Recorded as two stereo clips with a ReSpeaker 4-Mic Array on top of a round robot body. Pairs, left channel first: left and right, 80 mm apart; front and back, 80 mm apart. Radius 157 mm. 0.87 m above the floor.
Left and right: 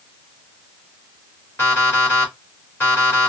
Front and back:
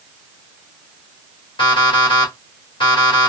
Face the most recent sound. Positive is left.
turn(degrees=25)